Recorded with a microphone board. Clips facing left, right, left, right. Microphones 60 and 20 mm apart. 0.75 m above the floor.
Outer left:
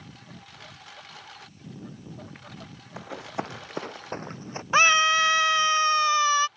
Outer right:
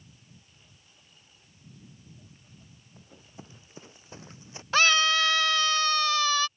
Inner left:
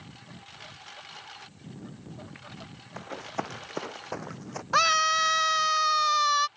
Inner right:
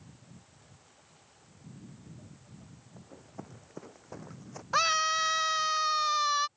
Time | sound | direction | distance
0.0 | a lawn mower | 80° left | ?
3.0 | running footsteps | 80° left | ?
4.7 | a scream | 20° left (ahead or behind) | ?